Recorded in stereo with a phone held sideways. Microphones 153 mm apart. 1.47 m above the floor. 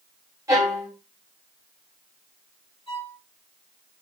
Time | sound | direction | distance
0.5 | a violin | 20° right (ahead or behind) | 1.7 m
2.9 | a violin | 35° left (ahead or behind) | 2 m